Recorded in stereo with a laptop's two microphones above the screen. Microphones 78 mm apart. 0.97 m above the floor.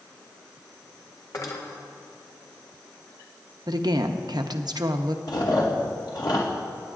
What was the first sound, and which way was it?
Cutlery clinking, 50° left (ahead or behind).